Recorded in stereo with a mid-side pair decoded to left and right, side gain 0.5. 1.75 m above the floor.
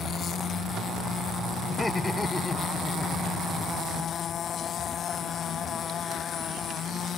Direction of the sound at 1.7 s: 25° left.